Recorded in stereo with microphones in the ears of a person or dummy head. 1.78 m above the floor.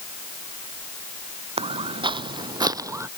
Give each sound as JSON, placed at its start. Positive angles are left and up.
{"t": 1.6, "sound": "footsteps", "side_deg": -25}